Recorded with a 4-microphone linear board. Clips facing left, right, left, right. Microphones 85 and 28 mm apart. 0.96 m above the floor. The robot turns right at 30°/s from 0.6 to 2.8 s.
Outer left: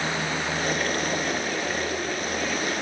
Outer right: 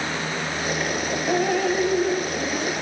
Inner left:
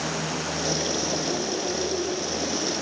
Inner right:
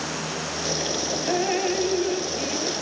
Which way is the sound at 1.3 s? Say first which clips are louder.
Outer right 7 dB, inner right 4 dB; 65° right.